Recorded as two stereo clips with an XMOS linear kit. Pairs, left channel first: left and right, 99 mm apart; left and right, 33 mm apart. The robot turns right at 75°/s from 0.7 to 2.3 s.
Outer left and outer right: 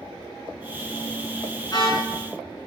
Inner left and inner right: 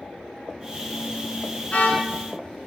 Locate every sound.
1.7 s a car horn: 35° left (ahead or behind), 6 m; by 2.0 s 65° left (ahead or behind), 6 m